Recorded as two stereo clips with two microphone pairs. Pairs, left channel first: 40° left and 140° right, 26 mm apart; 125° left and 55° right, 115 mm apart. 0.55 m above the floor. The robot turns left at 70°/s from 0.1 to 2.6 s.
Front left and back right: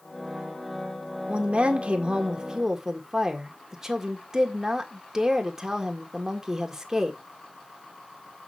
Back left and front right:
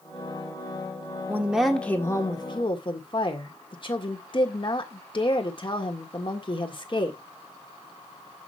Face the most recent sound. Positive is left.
turn(degrees=150)